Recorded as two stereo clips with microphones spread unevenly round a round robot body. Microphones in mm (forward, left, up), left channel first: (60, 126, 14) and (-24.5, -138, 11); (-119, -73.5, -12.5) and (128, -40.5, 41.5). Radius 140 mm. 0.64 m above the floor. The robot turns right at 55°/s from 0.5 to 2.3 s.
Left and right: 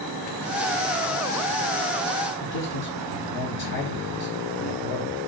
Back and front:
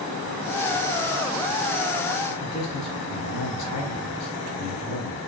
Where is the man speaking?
120° left, 4.5 m.